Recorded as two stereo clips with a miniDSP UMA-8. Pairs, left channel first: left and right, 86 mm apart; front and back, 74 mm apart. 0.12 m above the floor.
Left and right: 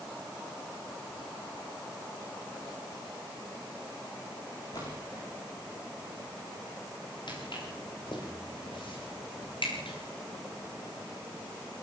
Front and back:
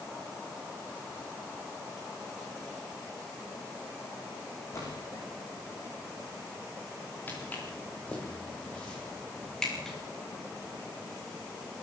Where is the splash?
50° left, 7 m.